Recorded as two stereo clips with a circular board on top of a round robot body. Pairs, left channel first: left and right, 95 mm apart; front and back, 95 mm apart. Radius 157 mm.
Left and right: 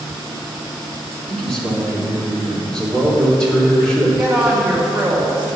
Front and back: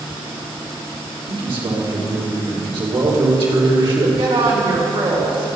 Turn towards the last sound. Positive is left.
turn(degrees=-170)